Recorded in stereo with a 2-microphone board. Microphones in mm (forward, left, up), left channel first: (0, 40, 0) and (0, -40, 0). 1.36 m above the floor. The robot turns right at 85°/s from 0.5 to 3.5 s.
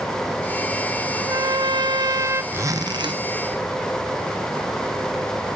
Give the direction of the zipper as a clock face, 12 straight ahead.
5 o'clock.